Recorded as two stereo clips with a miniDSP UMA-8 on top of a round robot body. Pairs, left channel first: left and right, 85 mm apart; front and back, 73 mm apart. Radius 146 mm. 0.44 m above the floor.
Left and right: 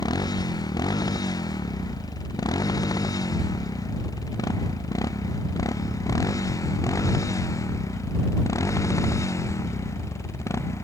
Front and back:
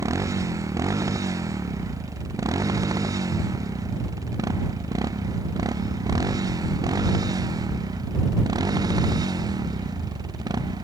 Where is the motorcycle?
130° left; by 10.8 s 145° left.